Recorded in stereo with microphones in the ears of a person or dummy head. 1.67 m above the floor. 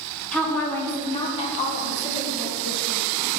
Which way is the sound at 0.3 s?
Centre (ahead or behind).